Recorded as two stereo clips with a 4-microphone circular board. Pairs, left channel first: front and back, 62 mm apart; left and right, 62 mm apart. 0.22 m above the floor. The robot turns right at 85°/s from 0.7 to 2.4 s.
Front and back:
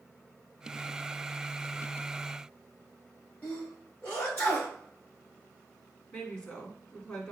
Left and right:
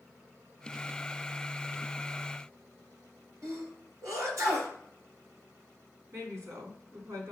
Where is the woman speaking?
70° right, 2.5 m.